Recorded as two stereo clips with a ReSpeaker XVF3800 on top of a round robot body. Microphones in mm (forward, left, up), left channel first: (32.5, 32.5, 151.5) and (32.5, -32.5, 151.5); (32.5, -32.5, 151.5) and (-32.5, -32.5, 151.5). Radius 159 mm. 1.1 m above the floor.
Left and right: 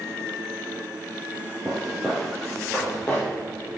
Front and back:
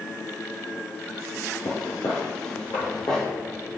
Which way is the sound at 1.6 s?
20° right.